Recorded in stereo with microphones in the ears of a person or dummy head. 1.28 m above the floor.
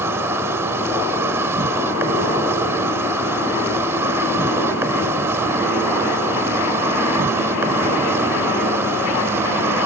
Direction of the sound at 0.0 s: 15° right (ahead or behind).